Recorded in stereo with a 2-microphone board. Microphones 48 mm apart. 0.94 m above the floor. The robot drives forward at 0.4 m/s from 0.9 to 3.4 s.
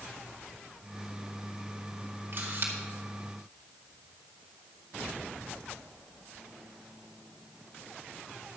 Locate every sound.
2.3 s a camera shutter: 50° right (ahead or behind), 2.0 m